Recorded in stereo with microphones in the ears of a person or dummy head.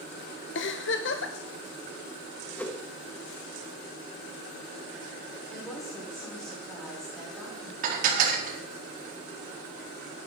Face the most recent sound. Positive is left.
turn(degrees=-50)  # may be behind; listen again after turning